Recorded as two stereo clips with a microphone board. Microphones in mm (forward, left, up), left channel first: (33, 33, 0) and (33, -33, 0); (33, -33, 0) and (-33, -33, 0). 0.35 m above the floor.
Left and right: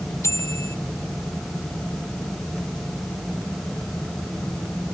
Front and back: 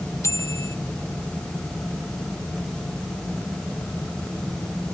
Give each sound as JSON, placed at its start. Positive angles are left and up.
{"t": 0.2, "sound": "a bicycle bell", "azimuth_deg": 45}